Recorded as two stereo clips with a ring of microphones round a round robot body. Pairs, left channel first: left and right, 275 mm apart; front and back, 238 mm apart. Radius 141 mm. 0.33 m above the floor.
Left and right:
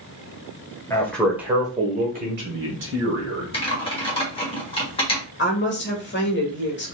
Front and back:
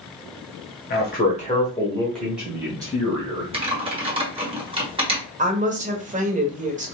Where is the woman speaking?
130° left, 1.2 m.